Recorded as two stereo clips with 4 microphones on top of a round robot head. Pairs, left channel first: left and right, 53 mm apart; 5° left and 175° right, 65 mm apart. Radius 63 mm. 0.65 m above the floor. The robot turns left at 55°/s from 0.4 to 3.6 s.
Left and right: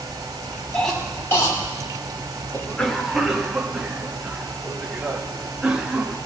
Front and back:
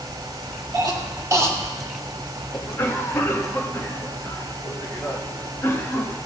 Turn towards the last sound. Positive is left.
turn(degrees=-20)